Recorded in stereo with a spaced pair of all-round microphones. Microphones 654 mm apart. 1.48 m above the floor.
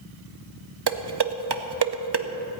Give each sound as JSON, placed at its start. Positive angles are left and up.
{"t": 0.9, "sound": "dishes clattering", "side_deg": -45, "distance_m": 0.6}